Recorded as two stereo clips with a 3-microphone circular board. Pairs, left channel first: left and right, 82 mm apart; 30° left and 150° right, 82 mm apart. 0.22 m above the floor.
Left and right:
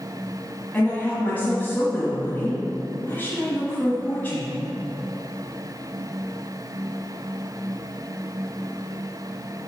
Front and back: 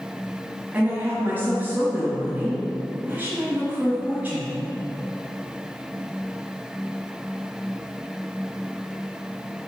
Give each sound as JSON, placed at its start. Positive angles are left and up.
{"t": 0.7, "sound": "a woman speaking", "azimuth_deg": 150, "distance_m": 1.3}